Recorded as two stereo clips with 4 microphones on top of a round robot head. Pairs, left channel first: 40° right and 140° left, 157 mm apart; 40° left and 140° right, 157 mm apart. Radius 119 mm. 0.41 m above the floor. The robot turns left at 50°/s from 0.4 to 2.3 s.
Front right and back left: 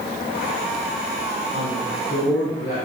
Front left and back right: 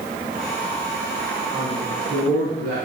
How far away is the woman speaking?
About 5 m.